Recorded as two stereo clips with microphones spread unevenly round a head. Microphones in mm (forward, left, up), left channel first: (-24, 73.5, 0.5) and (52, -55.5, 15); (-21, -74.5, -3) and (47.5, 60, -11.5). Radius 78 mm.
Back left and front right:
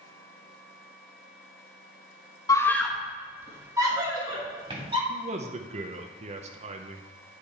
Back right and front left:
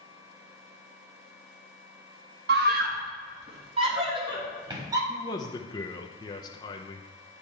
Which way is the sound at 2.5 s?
55° left.